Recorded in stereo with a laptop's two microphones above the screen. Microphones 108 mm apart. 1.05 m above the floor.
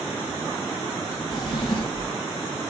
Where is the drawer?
40° left (ahead or behind), 1.7 m.